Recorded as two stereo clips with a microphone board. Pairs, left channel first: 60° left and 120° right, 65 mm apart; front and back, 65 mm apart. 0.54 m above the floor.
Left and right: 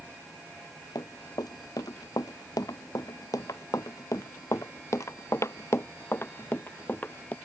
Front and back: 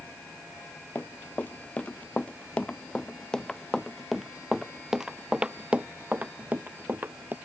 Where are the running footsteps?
60° left; by 7.3 s 125° left.